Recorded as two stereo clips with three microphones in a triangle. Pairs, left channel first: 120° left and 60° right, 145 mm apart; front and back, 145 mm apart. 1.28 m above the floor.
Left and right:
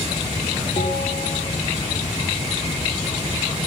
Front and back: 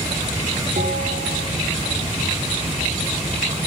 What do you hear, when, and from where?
0.8 s a bell: 170° left, 3.5 m